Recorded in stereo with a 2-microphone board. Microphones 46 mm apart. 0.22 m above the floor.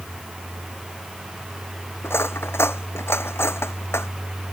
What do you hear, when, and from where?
2.0 s cutlery clinking: 65° left (ahead or behind)